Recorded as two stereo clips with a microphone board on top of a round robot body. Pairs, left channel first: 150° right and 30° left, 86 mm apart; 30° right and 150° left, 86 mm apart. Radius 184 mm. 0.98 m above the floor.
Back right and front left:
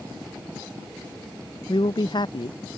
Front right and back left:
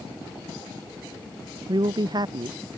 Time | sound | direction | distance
1.7 | a man speaking | 175° right | ?